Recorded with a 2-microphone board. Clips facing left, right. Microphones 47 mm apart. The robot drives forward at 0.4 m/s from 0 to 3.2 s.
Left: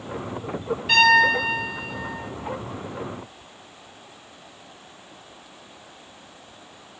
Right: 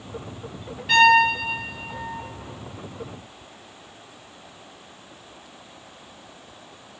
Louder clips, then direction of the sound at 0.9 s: Right 1 dB; 5° right (ahead or behind).